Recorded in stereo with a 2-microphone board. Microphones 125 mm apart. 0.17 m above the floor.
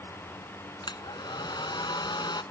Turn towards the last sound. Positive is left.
turn(degrees=35)  # may be behind; listen again after turning